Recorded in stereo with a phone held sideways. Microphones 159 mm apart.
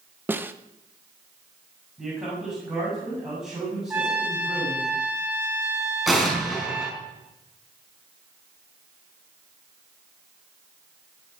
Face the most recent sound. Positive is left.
turn(degrees=0)  # may be behind; listen again after turning